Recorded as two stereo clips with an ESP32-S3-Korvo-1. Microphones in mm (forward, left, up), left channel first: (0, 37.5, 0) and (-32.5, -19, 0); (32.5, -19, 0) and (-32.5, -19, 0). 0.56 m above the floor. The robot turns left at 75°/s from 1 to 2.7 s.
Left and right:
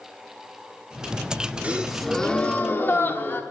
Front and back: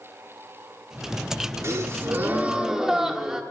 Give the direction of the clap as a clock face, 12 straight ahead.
No clap in this recording.